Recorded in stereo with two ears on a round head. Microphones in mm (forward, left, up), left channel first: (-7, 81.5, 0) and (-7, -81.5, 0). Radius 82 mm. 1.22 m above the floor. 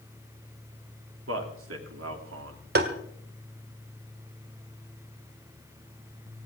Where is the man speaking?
80° right, 3 m.